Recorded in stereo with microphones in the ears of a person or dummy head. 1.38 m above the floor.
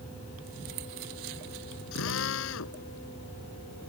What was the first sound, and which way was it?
A drill, 75° left (ahead or behind).